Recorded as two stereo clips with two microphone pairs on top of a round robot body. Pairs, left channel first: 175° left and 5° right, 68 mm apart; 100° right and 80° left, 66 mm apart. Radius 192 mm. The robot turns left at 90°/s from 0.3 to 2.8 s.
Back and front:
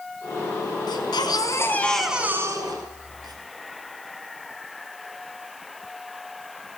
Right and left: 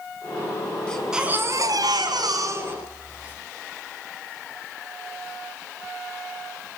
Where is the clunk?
No clunk in this recording.